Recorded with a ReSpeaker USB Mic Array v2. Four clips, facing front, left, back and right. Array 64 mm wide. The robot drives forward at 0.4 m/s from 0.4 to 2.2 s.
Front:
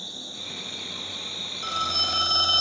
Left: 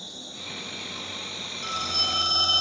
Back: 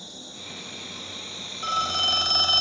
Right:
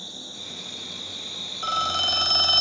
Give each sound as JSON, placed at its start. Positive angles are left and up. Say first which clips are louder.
{"t": 0.0, "sound": "an insect", "louder": "even, front 2 dB", "azimuth_deg": -15, "distance_m": 1.2}
{"t": 1.6, "sound": "a phone ringing", "louder": "right 6 dB, back 3 dB", "azimuth_deg": -115, "distance_m": 0.6}